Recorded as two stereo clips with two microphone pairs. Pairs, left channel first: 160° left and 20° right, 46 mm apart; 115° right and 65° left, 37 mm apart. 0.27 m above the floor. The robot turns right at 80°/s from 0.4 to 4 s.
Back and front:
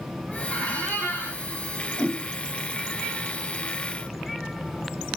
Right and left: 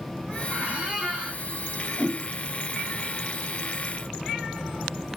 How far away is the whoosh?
About 1.5 m.